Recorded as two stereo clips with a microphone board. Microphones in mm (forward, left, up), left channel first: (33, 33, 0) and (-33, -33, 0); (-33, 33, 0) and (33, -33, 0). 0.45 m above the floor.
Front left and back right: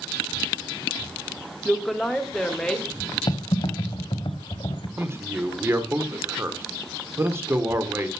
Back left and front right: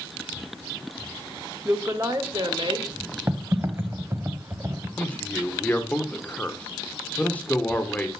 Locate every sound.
1.6 s a woman speaking: 45° right, 1.3 m; by 2.9 s 40° right, 2 m
3.3 s typing on a keyboard: 20° left, 0.9 m
5.0 s a man speaking: 165° right, 1.4 m